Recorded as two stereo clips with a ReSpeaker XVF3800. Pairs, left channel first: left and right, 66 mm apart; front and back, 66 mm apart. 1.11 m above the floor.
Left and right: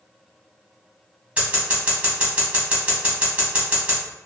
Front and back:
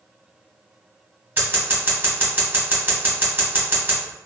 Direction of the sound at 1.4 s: 150° right.